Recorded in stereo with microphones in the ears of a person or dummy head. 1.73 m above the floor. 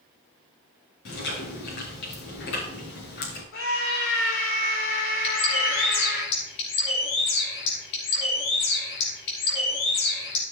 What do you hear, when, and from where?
1.1 s chewing: 70° left (ahead or behind), 5.5 m
3.5 s a scream: 70° left (ahead or behind), 7 m
5.2 s a bird: 65° left (ahead or behind), 3.5 m